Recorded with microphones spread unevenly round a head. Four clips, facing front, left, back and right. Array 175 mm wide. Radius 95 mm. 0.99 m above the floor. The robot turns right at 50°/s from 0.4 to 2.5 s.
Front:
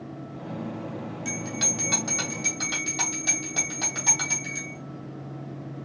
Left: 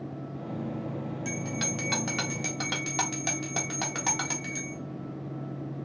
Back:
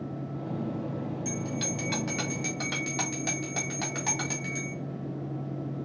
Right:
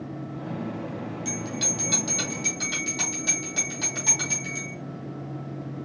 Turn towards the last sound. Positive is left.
turn(degrees=85)